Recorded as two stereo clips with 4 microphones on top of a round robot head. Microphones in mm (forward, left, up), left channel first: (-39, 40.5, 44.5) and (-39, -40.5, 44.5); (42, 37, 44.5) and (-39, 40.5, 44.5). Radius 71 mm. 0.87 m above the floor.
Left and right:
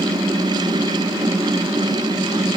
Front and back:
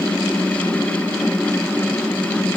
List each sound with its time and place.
Only background noise.